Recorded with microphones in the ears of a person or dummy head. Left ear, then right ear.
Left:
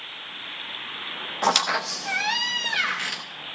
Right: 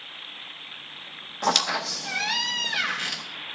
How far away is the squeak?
About 0.6 m.